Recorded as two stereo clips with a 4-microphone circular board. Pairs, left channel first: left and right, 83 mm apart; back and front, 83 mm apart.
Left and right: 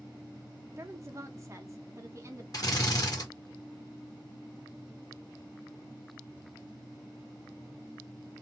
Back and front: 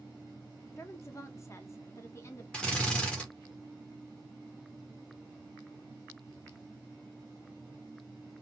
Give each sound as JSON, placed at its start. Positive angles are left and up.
{"t": 0.8, "sound": "a woman speaking", "azimuth_deg": -135, "distance_m": 0.7}
{"t": 2.5, "sound": "a drill", "azimuth_deg": 105, "distance_m": 1.3}